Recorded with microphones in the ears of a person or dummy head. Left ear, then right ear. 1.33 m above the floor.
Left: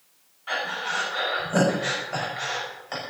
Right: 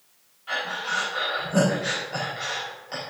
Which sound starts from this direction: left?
Breathing, at 0.5 s.